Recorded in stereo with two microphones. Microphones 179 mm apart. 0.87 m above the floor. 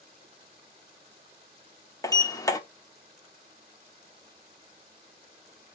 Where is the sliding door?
20° left (ahead or behind), 0.7 m.